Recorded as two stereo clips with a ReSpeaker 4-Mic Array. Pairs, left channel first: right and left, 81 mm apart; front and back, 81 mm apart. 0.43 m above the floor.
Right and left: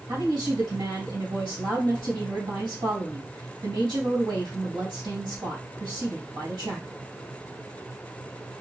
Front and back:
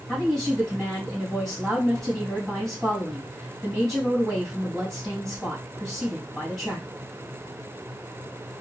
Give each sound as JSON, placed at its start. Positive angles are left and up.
{"t": 0.1, "sound": "a woman speaking", "azimuth_deg": 85, "distance_m": 2.5}